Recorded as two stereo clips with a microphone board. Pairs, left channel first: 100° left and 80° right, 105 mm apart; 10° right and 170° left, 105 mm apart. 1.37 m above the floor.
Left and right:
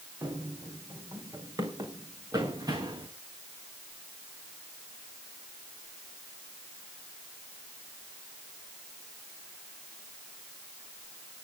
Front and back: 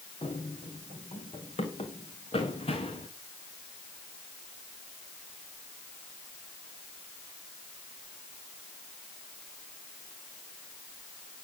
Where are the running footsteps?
20° right, 3.5 m; by 3.1 s 25° right, 6 m.